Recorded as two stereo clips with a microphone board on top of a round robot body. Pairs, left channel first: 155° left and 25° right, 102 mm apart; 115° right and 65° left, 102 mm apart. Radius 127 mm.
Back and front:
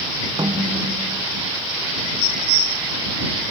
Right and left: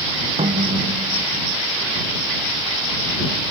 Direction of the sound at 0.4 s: 35° left.